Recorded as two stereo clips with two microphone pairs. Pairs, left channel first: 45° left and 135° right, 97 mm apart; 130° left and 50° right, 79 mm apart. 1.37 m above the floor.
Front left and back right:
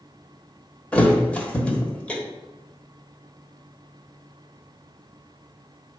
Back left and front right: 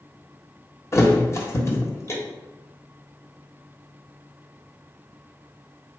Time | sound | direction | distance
0.9 | a thud | 110° left | 1.2 m